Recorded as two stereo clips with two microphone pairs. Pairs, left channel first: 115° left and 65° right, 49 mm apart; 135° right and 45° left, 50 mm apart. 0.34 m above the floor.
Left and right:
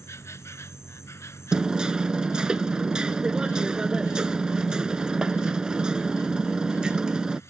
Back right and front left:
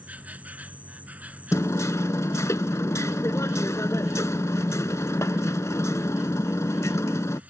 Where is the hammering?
140° right.